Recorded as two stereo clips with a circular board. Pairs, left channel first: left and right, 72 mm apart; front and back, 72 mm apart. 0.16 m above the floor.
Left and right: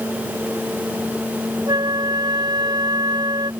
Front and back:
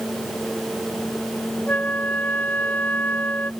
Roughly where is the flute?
Right.